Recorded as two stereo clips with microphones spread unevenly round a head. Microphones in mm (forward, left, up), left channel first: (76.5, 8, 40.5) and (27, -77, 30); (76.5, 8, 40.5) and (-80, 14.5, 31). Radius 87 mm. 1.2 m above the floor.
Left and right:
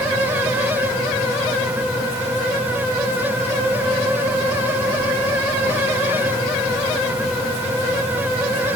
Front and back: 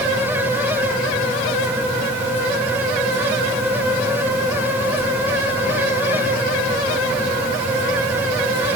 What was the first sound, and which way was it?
Only background noise.